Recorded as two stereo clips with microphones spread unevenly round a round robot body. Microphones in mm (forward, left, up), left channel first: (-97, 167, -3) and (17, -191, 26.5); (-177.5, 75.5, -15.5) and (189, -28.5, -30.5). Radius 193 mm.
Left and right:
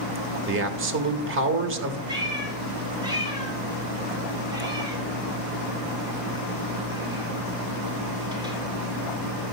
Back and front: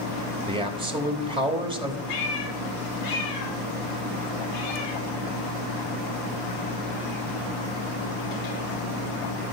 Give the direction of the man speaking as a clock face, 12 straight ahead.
2 o'clock.